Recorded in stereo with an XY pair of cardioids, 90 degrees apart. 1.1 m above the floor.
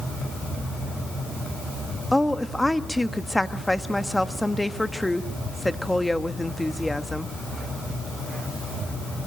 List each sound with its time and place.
2.1 s a woman speaking: 5° left, 1.3 m